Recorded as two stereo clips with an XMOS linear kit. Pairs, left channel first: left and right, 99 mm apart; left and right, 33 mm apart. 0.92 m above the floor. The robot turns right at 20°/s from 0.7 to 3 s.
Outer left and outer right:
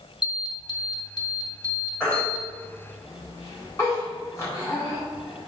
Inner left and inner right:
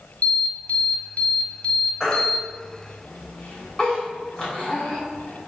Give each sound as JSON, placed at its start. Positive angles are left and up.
{"t": 0.2, "sound": "an alarm", "azimuth_deg": 115, "distance_m": 1.7}
{"t": 2.0, "sound": "a baby crying", "side_deg": 10, "distance_m": 3.0}